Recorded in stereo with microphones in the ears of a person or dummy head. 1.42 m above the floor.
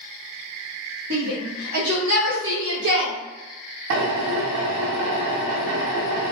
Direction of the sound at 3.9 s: 75° right (ahead or behind).